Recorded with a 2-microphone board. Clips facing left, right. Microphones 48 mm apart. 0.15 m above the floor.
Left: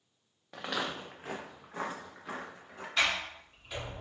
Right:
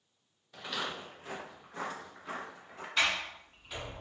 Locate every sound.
0.5 s footsteps: 70° left (ahead or behind), 0.6 m; by 2.9 s centre (ahead or behind), 1.2 m
3.0 s a sliding door: centre (ahead or behind), 1.4 m